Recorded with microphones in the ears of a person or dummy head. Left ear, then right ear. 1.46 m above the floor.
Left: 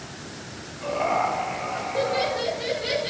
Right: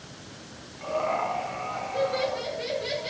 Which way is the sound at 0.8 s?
40° right (ahead or behind).